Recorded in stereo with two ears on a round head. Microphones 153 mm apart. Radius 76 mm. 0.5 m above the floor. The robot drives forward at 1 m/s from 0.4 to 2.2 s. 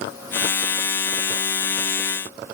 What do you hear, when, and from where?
Only background noise.